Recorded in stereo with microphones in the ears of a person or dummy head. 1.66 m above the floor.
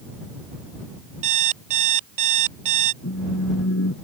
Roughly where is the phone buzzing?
Left.